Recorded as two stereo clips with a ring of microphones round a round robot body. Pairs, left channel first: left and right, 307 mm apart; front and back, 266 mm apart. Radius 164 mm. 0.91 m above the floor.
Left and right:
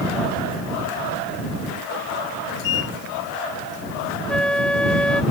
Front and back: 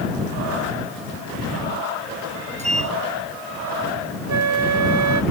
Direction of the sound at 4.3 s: 175° left.